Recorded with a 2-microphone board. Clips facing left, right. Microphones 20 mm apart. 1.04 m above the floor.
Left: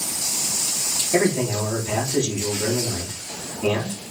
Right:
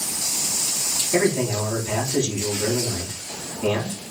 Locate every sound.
1.1 s a man speaking: 35° left (ahead or behind), 2.5 m